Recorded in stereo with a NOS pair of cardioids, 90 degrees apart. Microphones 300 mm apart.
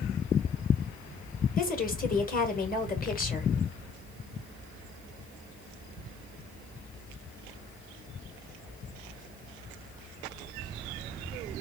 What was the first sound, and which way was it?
A woman speaking, 30° left.